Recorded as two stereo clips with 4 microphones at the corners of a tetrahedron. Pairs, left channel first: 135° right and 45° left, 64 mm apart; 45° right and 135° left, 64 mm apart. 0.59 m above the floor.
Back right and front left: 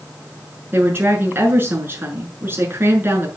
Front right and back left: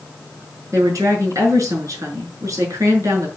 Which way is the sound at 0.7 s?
100° left.